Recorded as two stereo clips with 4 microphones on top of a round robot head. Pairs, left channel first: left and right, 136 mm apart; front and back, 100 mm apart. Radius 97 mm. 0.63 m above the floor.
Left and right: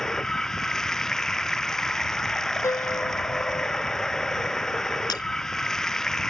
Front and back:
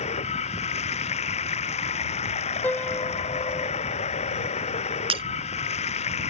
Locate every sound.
0.0 s running water: 5° left
2.6 s a piano: 50° left
5.1 s breaking glass: 160° left